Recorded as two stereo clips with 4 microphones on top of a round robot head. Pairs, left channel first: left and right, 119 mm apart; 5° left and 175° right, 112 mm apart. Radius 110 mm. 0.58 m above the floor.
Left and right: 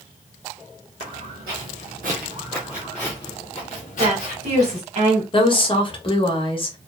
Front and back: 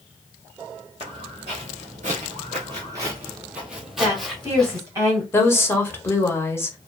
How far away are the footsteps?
About 1.2 m.